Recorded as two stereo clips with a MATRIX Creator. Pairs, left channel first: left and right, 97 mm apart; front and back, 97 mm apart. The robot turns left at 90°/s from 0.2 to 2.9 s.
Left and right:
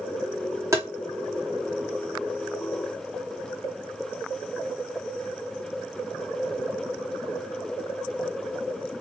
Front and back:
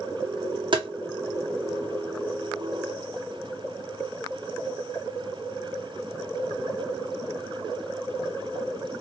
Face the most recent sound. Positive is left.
turn(degrees=15)